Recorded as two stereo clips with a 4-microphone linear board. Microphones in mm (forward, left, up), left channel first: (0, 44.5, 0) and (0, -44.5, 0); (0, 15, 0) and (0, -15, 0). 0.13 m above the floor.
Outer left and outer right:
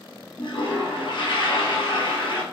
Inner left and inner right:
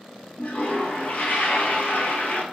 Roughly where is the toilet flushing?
Left.